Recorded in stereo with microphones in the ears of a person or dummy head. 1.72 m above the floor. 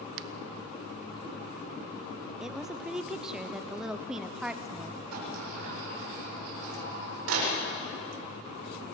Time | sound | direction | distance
0.2 | a finger snap | 65° right (ahead or behind) | 1.1 m
2.4 | a woman speaking | 5° right (ahead or behind) | 0.7 m
5.1 | a sliding door | 90° right | 7.5 m